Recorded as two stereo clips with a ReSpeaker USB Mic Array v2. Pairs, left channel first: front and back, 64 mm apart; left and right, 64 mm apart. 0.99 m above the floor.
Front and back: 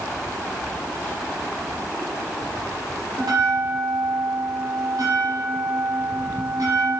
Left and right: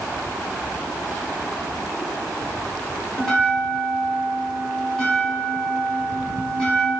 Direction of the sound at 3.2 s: 170° left.